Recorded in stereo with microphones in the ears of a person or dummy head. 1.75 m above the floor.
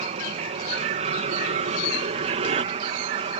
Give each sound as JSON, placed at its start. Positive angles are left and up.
{"t": 0.0, "sound": "an aircraft", "side_deg": -30}